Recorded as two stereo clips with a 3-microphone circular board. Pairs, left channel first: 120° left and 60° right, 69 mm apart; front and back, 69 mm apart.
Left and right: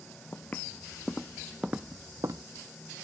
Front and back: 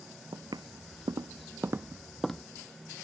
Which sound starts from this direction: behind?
Footsteps, at 0.3 s.